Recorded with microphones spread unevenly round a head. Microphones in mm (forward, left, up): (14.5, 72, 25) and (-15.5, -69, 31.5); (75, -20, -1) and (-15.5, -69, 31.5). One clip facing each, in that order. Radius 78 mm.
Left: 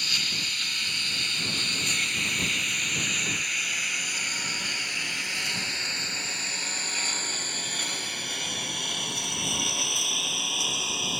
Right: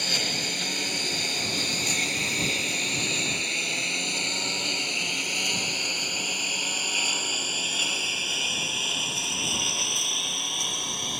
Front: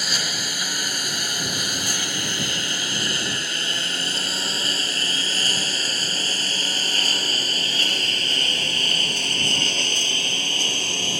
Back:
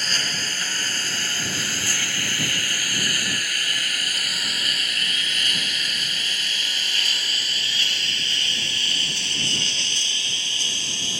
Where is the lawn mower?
55° right; by 11.2 s 10° right.